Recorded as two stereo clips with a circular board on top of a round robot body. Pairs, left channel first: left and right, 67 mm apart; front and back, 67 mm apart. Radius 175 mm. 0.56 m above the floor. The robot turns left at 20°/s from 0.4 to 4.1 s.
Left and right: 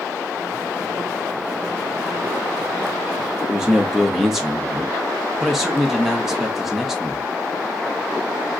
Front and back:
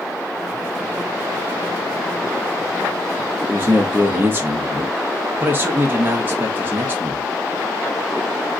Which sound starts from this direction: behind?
A man speaking, at 3.5 s.